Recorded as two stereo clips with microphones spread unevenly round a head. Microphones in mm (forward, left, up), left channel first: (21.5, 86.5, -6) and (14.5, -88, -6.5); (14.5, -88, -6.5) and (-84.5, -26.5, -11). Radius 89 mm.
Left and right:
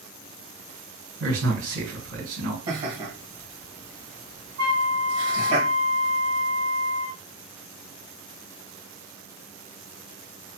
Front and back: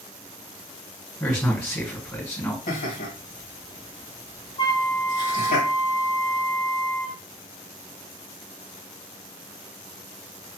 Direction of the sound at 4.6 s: 60° right.